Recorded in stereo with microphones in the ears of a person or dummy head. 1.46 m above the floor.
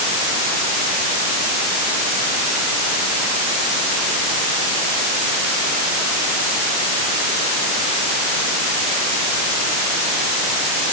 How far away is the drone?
No drone in this recording.